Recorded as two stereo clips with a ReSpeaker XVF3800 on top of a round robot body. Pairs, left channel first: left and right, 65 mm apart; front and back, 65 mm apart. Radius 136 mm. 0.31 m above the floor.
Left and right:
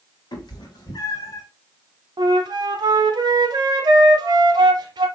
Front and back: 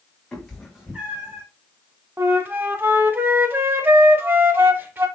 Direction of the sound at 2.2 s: 120° right.